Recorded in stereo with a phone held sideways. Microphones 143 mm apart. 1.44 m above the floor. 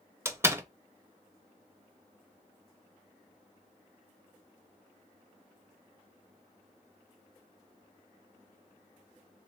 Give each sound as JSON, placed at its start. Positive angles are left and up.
{"t": 0.2, "sound": "a door slam", "side_deg": -20, "distance_m": 0.6}